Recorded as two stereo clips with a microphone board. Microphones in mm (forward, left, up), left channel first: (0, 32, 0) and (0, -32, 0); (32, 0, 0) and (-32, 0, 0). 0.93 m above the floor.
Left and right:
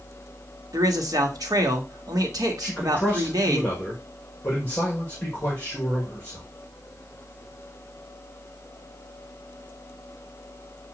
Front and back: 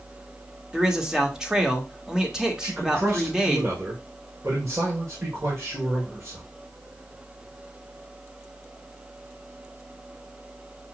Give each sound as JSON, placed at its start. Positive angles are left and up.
{"t": 0.7, "sound": "a man speaking", "azimuth_deg": -100, "distance_m": 1.3}
{"t": 2.6, "sound": "a man speaking", "azimuth_deg": 150, "distance_m": 1.5}